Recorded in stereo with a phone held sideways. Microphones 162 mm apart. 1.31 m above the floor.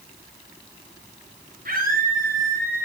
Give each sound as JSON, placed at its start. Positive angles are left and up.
{"t": 1.6, "sound": "a scream", "side_deg": -55, "distance_m": 8.0}